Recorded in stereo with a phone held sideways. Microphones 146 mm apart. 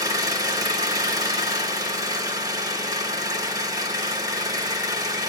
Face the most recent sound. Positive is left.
turn(degrees=-25)  # may be behind; listen again after turning